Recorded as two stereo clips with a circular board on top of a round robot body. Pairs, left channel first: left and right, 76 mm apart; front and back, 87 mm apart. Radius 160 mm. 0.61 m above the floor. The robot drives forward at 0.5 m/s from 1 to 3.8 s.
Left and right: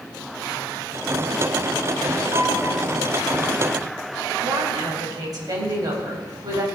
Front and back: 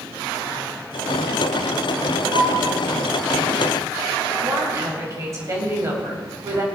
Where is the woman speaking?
125° right, 3.5 m.